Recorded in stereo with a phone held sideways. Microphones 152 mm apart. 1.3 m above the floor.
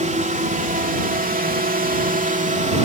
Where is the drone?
55° right (ahead or behind); by 2.9 s 50° right (ahead or behind).